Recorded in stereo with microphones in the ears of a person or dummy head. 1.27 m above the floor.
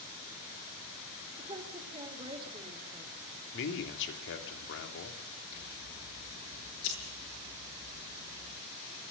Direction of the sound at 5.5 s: 60° left (ahead or behind).